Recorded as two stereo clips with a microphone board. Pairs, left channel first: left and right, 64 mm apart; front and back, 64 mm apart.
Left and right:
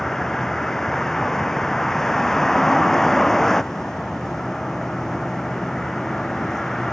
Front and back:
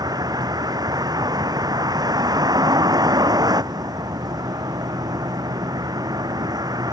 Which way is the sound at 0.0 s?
175° left.